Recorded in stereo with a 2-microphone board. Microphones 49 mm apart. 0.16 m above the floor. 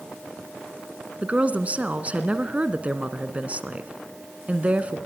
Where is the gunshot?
No gunshot in this recording.